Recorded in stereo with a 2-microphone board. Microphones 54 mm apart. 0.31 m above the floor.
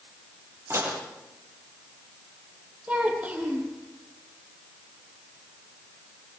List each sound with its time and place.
0.7 s dishes clattering: 55° right (ahead or behind), 6 m
2.9 s a child speaking: 25° right (ahead or behind), 8 m